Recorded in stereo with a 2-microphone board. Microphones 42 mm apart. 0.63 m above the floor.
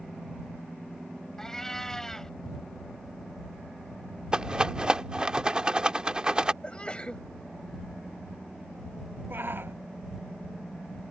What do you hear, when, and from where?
1.4 s a cat meowing: 15° left (ahead or behind)
4.3 s a rattle: 20° right (ahead or behind)
6.6 s a sneeze: 25° left (ahead or behind)
9.3 s a shout: 55° right (ahead or behind)